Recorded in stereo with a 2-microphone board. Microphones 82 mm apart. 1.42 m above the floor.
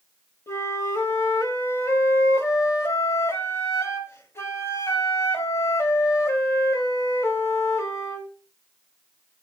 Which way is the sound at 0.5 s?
35° left (ahead or behind).